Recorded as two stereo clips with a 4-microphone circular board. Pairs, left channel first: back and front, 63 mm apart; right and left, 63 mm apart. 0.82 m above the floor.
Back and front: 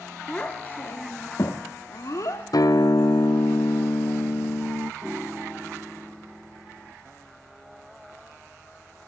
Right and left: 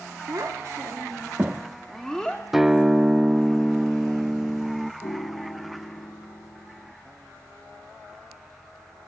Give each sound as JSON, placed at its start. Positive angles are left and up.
{"t": 0.3, "sound": "a child speaking", "azimuth_deg": 105, "distance_m": 1.5}
{"t": 2.5, "sound": "a guitar", "azimuth_deg": 175, "distance_m": 0.6}
{"t": 5.0, "sound": "a piano", "azimuth_deg": -85, "distance_m": 1.3}